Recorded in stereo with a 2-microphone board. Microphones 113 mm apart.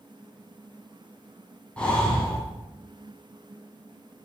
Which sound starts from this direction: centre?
Breathing, at 1.8 s.